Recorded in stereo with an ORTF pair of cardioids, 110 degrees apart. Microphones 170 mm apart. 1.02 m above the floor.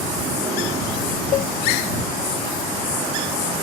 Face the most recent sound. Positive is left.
turn(degrees=55)